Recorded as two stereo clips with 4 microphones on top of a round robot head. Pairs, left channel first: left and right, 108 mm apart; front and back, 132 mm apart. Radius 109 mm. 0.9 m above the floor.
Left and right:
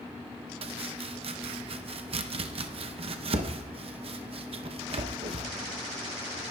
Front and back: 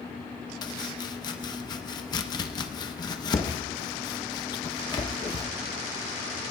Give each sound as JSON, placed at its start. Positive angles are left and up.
{"t": 0.6, "sound": "chopping", "azimuth_deg": -60, "distance_m": 0.7}